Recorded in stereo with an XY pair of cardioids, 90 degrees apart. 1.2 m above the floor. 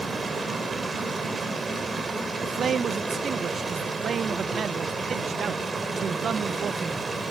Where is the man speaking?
55° right, 0.9 m.